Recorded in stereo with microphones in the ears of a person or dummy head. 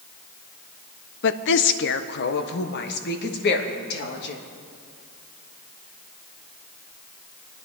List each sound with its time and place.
1.2 s a woman speaking: 65° left (ahead or behind), 0.8 m; by 4.4 s 55° left (ahead or behind), 3 m